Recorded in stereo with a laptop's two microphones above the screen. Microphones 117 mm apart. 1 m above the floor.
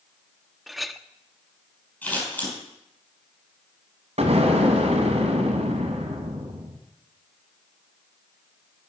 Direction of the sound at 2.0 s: 15° left (ahead or behind).